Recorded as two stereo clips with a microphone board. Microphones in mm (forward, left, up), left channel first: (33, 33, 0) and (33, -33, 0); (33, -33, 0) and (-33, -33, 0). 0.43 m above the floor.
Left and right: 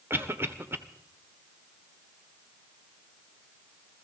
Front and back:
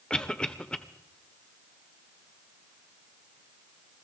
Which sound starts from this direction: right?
A cough, at 0.1 s.